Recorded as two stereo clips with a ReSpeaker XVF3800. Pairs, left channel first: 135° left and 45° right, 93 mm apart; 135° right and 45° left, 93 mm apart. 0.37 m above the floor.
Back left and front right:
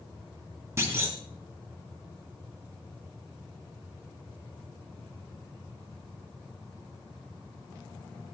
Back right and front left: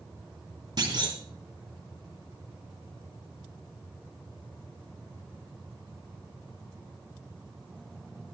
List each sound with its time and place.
0.8 s a clunk: 10° left, 2.5 m